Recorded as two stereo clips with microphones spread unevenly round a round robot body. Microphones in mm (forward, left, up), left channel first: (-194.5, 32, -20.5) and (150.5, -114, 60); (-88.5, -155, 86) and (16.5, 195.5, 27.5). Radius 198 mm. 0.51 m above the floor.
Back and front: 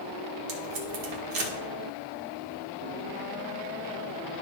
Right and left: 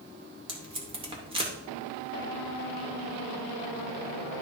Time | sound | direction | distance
0.5 | tape being pulled | 10° left | 1.9 m